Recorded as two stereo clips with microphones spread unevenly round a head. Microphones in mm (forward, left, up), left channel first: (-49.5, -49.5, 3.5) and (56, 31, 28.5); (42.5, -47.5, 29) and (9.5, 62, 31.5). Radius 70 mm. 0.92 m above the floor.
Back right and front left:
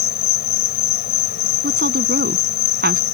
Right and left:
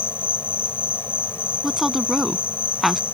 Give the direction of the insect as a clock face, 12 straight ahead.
5 o'clock.